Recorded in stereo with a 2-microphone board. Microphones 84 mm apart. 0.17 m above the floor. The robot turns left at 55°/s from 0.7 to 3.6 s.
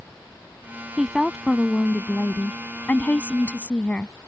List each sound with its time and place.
1.0 s a woman speaking: 5° right (ahead or behind); by 4.3 s 15° left (ahead or behind)